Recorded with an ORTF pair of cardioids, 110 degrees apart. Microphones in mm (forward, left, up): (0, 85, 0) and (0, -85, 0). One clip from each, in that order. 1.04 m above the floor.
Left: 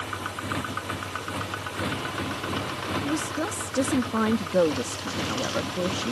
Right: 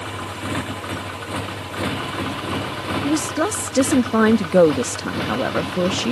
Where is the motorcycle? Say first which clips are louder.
Right 3 dB; 35° right; by 6.1 s 30° right.